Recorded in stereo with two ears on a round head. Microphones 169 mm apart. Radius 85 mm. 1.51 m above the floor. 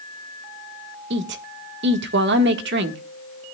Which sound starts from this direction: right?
A woman speaking, at 1.1 s.